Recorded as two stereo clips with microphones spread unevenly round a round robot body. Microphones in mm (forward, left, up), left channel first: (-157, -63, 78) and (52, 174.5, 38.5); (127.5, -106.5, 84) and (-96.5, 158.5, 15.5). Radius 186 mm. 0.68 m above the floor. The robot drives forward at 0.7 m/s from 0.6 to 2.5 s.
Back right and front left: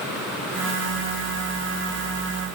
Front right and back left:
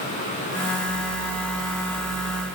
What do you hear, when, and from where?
Only background noise.